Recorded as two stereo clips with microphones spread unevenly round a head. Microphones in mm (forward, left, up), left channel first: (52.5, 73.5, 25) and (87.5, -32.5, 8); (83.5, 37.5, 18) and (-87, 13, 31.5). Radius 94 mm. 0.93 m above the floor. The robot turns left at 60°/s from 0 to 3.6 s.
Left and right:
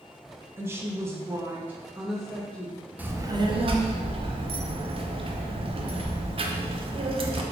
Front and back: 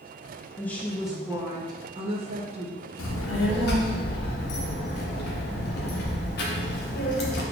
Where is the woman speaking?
50° right, 0.5 m; by 2.9 s 170° left, 0.5 m.